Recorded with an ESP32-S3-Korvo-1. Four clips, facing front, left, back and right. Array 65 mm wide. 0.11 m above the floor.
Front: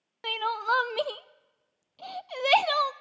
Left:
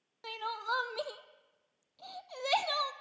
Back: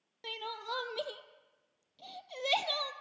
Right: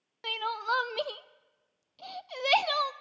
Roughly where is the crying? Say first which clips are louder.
Right 5 dB, front 13 dB; ahead.